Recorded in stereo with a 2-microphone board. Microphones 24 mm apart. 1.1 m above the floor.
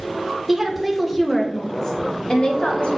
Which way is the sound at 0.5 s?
10° right (ahead or behind).